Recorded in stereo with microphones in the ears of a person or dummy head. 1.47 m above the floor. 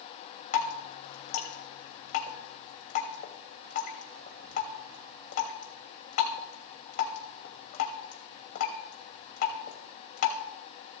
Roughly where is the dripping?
Left.